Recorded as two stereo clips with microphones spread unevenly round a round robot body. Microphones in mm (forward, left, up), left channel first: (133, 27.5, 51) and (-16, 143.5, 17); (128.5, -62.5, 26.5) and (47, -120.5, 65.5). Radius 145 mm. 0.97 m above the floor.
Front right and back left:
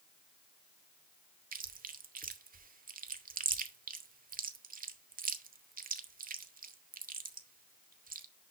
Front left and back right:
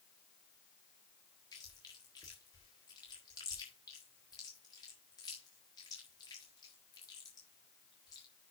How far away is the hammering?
No hammering in this recording.